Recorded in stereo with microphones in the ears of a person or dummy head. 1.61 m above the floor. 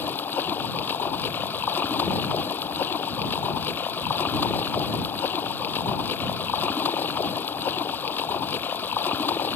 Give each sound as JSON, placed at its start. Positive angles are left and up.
{"t": 0.0, "sound": "running water", "side_deg": 20}